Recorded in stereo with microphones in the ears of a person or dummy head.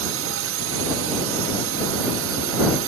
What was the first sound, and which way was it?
A drone, 65° right (ahead or behind).